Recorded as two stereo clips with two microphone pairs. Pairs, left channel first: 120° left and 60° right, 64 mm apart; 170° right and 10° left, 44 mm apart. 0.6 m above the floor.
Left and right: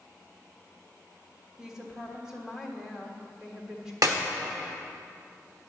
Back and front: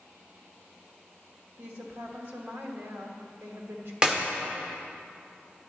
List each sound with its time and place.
1.6 s a woman speaking: 20° left, 1.4 m
4.0 s a clap: 60° right, 1.3 m